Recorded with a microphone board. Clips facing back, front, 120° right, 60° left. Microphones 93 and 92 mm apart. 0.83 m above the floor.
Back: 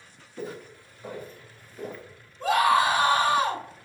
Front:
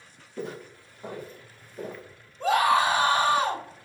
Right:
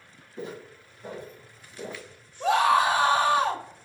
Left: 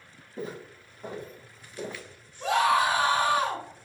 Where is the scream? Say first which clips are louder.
Even, right 2 dB; 60° right, 1.9 m.